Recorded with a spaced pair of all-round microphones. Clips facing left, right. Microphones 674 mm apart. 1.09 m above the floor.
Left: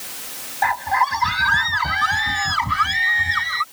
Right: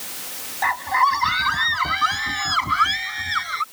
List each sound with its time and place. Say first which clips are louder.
0.6 s a scream: left 2 dB; 20° left (ahead or behind); by 3.6 s 30° left (ahead or behind)